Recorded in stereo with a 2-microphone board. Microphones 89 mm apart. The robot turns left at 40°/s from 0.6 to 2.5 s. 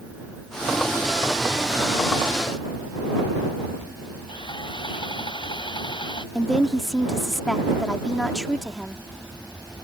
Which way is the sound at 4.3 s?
65° left (ahead or behind).